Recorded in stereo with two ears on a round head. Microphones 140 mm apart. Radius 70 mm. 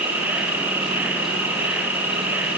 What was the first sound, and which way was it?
An insect, 10° right (ahead or behind).